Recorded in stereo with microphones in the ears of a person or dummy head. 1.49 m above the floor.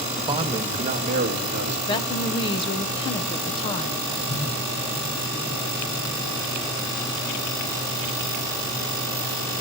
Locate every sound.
0.2 s a man speaking: 15° right (ahead or behind), 1.7 m; by 1.8 s 55° right (ahead or behind), 2.5 m
1.9 s a woman speaking: 30° left (ahead or behind), 0.8 m
4.3 s a whoosh: 50° left (ahead or behind), 9.5 m